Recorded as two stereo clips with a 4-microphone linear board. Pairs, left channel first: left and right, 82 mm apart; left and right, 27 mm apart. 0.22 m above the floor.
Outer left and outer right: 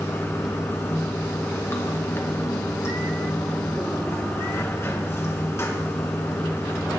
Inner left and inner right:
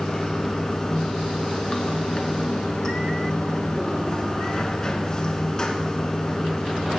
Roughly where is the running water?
Left.